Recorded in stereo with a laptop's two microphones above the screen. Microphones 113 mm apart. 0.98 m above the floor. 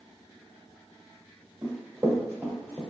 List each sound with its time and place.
1.6 s running footsteps: 35° right (ahead or behind), 1.5 m; by 2.8 s 10° right (ahead or behind), 1.7 m